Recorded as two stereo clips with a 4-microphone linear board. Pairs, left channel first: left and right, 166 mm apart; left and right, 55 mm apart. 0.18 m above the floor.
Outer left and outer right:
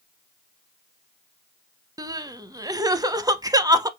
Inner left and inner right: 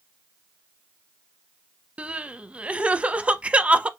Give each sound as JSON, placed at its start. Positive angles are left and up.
{"t": 2.0, "sound": "crying", "side_deg": -20, "distance_m": 0.6}